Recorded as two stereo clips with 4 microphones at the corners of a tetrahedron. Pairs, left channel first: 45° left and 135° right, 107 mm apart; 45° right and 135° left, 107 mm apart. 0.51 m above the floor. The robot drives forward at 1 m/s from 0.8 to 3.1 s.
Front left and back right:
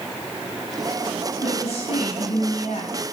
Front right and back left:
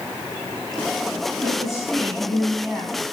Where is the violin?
No violin in this recording.